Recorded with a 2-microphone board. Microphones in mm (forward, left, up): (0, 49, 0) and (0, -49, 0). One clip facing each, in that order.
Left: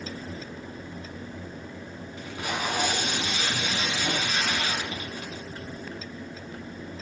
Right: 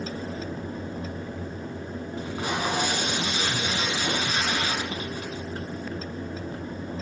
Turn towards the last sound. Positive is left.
turn(degrees=-35)  # may be behind; listen again after turning